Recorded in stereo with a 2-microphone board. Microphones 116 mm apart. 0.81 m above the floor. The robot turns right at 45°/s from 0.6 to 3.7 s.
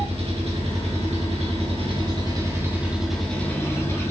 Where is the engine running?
115° right, 1.6 m; by 4.1 s 25° left, 1.6 m.